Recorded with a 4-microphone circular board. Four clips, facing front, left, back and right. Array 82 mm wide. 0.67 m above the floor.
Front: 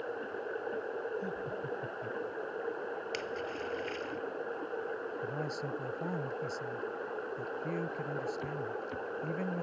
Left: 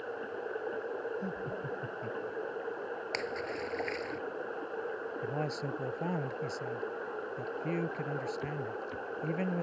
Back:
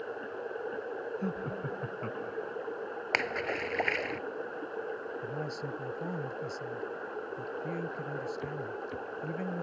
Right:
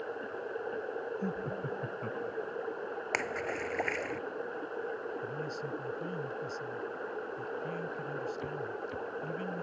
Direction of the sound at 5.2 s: 90° left.